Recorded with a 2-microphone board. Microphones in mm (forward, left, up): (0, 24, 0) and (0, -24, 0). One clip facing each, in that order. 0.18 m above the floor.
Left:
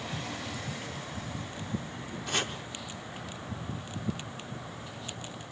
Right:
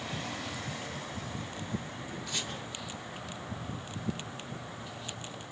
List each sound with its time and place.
2.3 s chopping: 60° left (ahead or behind), 2.5 m